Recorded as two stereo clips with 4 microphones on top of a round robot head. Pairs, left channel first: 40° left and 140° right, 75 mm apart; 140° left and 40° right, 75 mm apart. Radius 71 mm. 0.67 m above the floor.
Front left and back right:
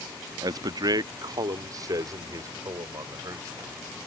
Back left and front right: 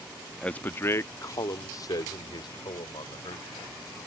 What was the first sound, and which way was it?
A man speaking, 145° right.